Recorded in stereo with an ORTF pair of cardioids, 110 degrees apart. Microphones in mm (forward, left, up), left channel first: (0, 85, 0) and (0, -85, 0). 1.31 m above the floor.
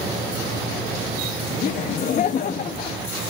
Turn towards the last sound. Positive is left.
turn(degrees=50)